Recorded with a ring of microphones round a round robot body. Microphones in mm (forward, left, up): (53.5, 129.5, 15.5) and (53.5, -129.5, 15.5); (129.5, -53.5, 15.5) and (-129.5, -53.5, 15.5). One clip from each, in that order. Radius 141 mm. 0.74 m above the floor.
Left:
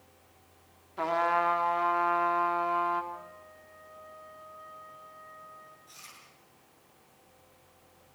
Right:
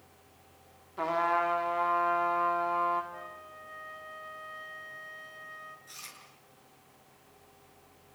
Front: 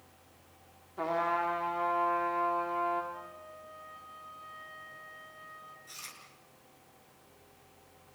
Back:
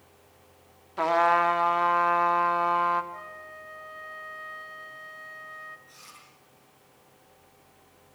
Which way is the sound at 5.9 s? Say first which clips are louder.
Right 3 dB, front 3 dB; 30° right.